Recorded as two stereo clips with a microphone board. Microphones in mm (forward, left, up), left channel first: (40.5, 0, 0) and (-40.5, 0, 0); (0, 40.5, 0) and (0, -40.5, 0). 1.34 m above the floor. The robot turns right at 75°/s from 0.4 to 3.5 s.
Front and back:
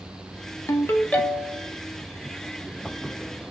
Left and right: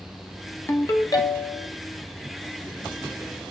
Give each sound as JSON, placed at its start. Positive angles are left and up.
{"t": 0.7, "sound": "a ringtone", "azimuth_deg": 35, "distance_m": 0.6}